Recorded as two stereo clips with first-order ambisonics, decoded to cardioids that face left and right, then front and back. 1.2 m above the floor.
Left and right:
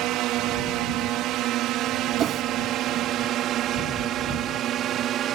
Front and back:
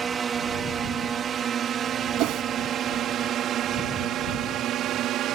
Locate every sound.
0.0 s a drone: 115° right; by 5.4 s 140° right
2.2 s a whoosh: 145° right